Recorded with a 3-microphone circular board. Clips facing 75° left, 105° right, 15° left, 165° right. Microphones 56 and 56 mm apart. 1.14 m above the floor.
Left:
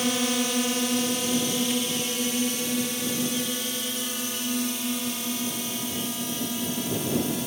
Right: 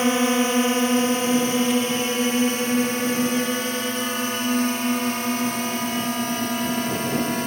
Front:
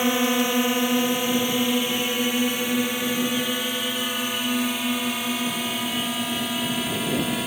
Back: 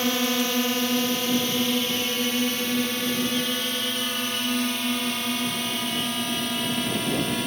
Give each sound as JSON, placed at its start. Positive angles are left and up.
{"t": 0.0, "sound": "a drone", "azimuth_deg": -55}